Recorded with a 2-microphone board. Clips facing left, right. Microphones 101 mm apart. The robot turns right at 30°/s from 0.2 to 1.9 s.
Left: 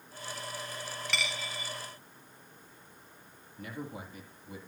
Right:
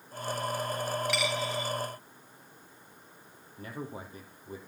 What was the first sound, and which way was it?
A dropped coin, 5° right (ahead or behind).